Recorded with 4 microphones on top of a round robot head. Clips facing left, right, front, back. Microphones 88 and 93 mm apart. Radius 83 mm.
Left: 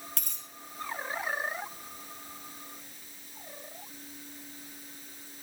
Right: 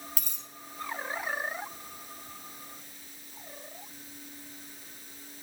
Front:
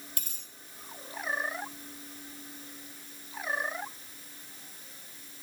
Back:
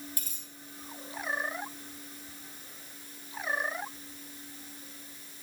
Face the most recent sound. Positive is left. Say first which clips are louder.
# right 1 dB, back 1 dB
turn(degrees=-5)